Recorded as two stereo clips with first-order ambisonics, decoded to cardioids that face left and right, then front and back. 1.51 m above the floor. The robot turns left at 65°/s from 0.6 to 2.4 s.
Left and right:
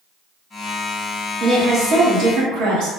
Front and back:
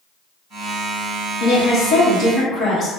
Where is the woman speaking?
5° right, 1.1 m; by 2.9 s 70° right, 1.1 m.